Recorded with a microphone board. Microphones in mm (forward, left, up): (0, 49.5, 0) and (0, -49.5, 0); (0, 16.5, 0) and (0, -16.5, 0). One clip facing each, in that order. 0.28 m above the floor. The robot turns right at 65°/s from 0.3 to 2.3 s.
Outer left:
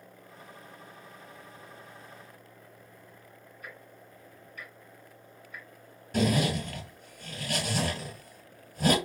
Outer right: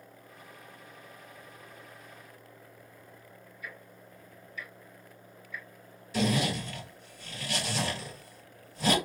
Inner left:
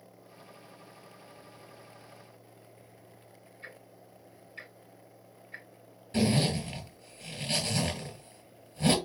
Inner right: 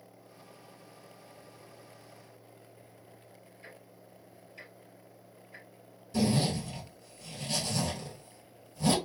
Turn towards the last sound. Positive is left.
turn(degrees=50)  # may be behind; listen again after turning